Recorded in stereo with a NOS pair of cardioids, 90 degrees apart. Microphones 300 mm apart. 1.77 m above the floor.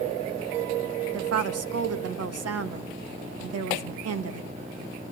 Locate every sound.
1.1 s a woman speaking: 55° right, 2 m